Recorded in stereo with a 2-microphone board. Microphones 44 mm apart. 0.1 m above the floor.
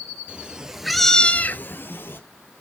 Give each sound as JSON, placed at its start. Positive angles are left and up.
{"t": 0.3, "sound": "a cat meowing", "side_deg": -25, "distance_m": 1.7}